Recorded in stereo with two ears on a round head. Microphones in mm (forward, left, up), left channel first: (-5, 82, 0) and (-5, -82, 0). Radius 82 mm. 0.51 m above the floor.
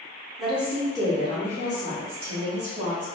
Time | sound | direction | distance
0.4 | a woman speaking | centre (ahead or behind) | 1.0 m